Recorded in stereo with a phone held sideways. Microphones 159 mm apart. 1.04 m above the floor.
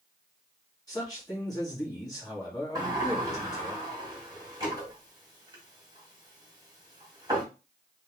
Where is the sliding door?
25° right (ahead or behind), 1.6 m.